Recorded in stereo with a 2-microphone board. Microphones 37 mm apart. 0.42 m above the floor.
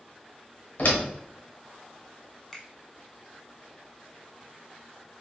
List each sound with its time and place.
0.8 s a door slam: 55° left (ahead or behind), 1.1 m
2.5 s a finger snap: 10° left (ahead or behind), 1.2 m